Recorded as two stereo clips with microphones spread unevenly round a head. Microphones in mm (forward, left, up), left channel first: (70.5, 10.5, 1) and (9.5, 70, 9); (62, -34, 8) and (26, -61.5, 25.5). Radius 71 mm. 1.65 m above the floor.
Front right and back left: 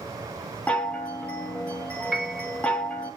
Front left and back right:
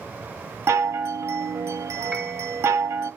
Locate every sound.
0.7 s a chime: 130° right, 0.5 m
2.1 s a piano: 155° right, 1.0 m